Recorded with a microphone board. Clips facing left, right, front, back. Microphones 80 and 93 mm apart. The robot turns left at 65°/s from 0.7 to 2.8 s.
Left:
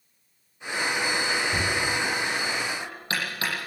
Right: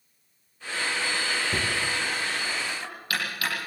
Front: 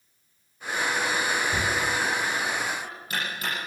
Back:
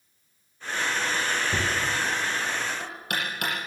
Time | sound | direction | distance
1.5 | knocking | 125° right | 8.5 m